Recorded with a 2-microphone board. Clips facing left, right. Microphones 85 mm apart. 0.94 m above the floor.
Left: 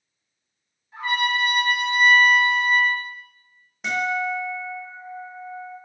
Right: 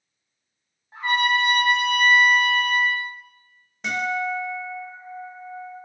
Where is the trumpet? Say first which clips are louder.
Right 2 dB; 35° right (ahead or behind), 0.9 m.